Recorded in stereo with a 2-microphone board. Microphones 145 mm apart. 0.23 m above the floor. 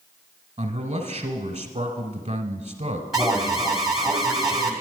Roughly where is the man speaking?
Right.